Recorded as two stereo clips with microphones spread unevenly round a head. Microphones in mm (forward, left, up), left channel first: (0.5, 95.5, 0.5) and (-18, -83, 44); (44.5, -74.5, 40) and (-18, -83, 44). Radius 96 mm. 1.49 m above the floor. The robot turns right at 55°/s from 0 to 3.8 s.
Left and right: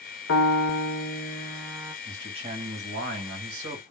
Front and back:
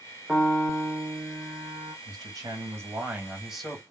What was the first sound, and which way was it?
A piano, 105° left.